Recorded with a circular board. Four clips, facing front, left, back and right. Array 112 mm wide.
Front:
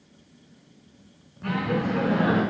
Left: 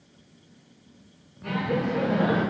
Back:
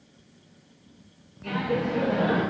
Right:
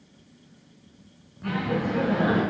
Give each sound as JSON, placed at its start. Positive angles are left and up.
{"t": 1.4, "sound": "laughter", "azimuth_deg": -15, "distance_m": 2.0}